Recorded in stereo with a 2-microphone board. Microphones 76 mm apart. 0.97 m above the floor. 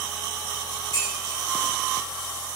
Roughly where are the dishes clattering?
Left.